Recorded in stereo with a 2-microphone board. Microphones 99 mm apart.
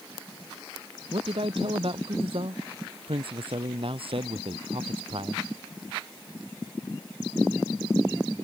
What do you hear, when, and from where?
1.1 s a man speaking: 65° right (ahead or behind)